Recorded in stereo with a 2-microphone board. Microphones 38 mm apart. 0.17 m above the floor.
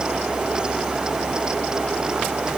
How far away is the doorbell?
I don't hear a doorbell.